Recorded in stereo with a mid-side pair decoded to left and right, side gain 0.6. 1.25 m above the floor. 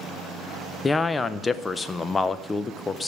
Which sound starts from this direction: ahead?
A man speaking, at 0.8 s.